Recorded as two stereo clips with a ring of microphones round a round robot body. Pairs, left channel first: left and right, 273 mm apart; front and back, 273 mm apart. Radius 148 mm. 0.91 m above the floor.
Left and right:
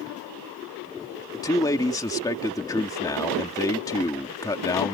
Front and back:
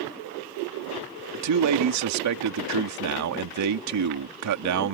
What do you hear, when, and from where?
1.3 s a man speaking: 170° left